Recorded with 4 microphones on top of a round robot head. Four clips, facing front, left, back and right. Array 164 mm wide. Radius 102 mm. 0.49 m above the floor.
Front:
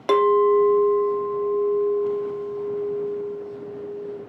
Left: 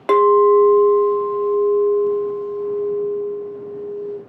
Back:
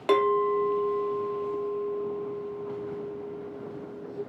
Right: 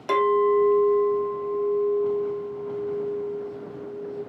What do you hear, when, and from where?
0.1 s a clink: 70° left, 0.5 m